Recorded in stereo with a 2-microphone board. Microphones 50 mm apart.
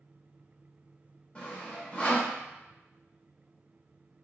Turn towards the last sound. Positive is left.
turn(degrees=25)  # may be behind; listen again after turning